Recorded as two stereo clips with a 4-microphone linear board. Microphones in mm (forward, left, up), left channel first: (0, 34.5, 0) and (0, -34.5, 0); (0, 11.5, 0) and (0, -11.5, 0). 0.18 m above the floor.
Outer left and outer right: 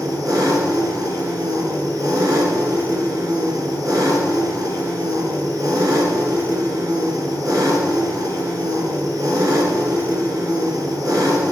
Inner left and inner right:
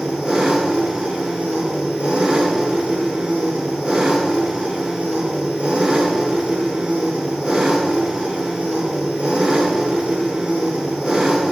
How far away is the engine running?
About 1.8 m.